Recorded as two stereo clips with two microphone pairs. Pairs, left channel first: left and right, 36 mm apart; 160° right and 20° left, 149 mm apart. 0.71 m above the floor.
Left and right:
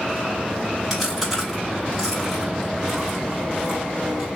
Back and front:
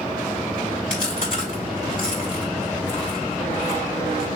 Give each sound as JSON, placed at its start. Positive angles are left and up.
{"t": 0.9, "sound": "chewing", "azimuth_deg": 180, "distance_m": 2.5}